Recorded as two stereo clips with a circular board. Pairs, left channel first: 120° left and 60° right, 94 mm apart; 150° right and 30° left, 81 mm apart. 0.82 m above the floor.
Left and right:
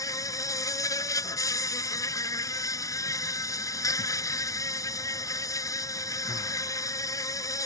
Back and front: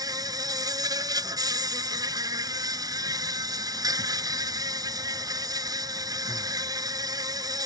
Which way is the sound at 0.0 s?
65° left.